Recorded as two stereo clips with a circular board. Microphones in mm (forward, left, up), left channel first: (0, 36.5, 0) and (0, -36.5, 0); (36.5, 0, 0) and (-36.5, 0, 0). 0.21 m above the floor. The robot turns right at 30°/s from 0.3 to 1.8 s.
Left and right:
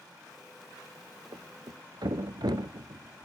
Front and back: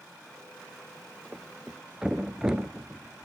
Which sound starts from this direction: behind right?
A thud, at 1.3 s.